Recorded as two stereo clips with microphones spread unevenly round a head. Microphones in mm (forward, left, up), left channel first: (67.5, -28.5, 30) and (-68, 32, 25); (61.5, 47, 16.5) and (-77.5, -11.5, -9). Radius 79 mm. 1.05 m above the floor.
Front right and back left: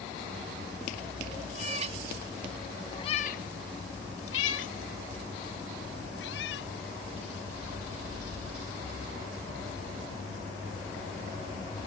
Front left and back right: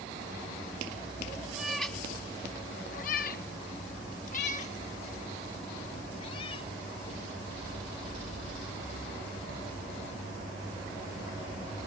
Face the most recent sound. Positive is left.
turn(degrees=-35)